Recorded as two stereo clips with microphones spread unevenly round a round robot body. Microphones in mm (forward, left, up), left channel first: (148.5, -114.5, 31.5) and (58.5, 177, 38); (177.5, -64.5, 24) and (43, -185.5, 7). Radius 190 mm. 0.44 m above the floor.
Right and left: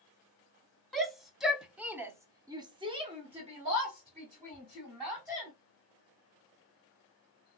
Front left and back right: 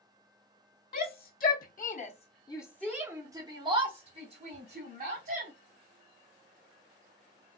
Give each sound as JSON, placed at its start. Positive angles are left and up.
{"t": 0.9, "sound": "a shout", "azimuth_deg": 15, "distance_m": 1.7}